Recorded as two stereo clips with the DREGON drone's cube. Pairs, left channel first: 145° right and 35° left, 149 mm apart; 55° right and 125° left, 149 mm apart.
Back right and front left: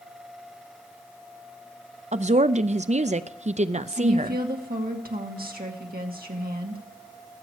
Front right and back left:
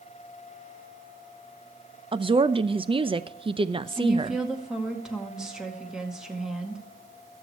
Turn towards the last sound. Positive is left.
turn(degrees=35)